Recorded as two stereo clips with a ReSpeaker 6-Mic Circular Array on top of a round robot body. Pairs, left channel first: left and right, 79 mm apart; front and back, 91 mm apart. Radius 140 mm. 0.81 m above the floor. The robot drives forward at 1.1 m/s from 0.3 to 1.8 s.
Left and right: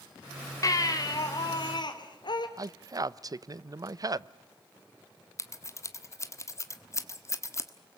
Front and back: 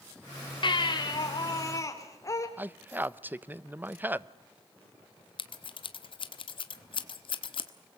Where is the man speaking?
115° right, 0.8 m.